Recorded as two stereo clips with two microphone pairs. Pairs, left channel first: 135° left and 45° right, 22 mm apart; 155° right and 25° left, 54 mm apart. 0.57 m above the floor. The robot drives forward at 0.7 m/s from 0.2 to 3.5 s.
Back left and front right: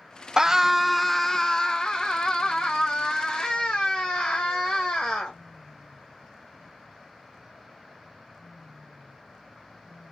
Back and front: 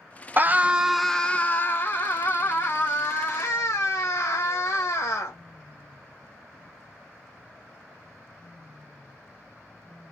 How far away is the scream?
About 0.7 m.